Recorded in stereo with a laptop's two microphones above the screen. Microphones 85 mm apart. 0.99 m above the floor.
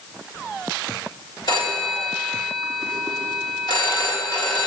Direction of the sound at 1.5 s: 55° left (ahead or behind).